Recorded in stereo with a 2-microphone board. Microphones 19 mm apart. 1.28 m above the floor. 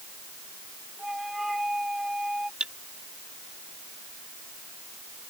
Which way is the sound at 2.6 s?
60° right (ahead or behind).